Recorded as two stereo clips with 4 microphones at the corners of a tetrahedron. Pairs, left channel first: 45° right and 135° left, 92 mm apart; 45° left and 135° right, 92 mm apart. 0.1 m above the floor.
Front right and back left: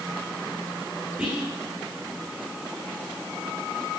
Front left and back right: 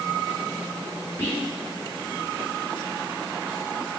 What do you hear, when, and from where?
1.2 s whispering: 70° left, 1.4 m